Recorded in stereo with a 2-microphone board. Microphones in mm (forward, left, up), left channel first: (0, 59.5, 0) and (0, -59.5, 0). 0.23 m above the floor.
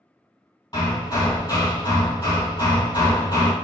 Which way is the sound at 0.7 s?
35° left (ahead or behind).